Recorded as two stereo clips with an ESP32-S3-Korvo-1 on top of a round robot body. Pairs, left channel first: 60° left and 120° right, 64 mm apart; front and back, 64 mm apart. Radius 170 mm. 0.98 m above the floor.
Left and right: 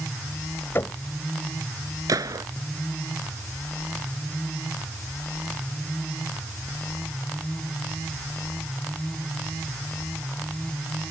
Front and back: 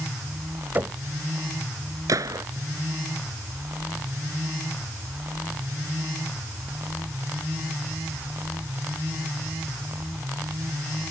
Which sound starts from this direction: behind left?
Knocking, at 0.8 s.